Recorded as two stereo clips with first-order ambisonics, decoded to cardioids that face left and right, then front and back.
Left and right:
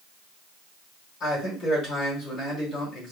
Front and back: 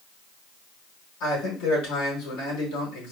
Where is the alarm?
No alarm in this recording.